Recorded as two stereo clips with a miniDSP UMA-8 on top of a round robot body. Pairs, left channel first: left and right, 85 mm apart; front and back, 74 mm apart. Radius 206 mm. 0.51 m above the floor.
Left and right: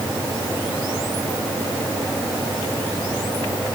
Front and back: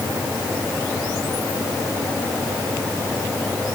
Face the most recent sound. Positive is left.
No sound to turn to.